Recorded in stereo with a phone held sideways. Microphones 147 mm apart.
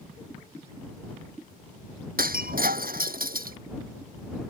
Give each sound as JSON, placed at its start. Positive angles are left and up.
{"t": 2.2, "sound": "breaking glass", "side_deg": -70}